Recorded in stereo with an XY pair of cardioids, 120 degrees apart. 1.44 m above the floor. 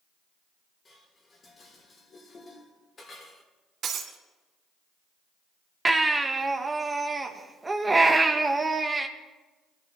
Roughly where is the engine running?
I don't hear an engine running.